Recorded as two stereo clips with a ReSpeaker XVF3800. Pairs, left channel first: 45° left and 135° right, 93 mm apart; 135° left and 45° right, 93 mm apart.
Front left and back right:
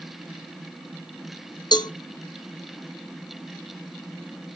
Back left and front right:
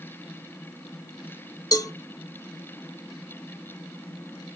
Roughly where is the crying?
No crying in this recording.